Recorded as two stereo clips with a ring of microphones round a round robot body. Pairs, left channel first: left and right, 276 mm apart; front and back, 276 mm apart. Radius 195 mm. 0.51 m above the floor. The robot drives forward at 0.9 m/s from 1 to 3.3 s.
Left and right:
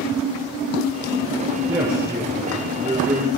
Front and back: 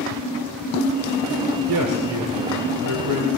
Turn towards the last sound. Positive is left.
turn(degrees=-175)